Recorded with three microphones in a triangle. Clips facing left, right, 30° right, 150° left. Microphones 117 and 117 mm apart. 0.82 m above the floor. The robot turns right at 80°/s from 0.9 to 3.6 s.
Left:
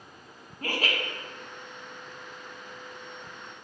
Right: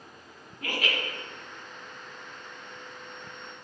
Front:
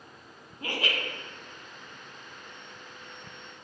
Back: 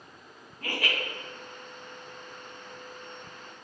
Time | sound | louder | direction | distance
0.6 | laughter | left 1 dB, even | 35° left | 0.9 m